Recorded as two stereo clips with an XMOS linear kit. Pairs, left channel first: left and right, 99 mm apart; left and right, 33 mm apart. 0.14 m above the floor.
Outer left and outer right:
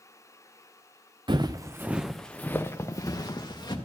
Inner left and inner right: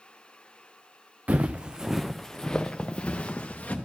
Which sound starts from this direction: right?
Footsteps, at 1.3 s.